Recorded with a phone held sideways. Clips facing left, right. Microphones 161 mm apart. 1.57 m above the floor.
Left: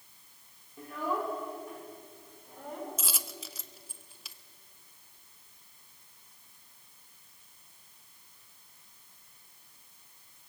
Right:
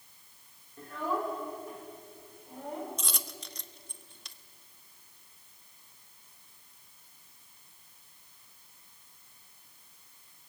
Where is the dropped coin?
5° left (ahead or behind), 0.8 m.